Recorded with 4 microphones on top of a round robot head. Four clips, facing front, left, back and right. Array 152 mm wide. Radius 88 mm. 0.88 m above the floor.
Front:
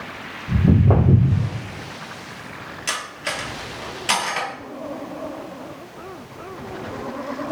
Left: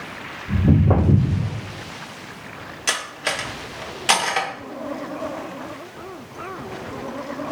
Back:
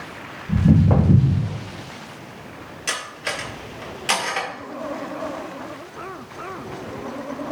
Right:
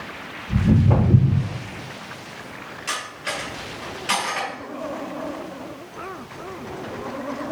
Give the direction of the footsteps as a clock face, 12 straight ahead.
11 o'clock.